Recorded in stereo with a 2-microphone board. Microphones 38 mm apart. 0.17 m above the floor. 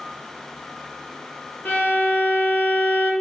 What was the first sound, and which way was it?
A violin, 55° left (ahead or behind).